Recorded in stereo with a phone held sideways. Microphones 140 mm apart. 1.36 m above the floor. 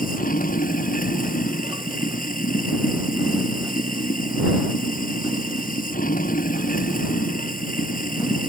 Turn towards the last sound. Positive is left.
turn(degrees=80)